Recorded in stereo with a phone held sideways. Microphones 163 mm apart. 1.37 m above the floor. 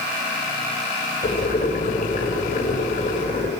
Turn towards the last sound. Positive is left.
turn(degrees=55)  # may be behind; listen again after turning